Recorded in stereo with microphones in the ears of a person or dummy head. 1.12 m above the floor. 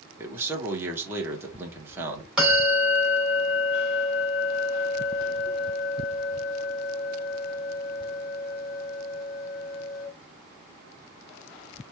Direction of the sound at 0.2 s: 15° right (ahead or behind).